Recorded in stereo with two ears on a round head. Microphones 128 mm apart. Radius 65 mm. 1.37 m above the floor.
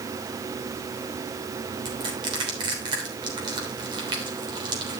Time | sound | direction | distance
1.9 | crushing | 30° right (ahead or behind) | 3 m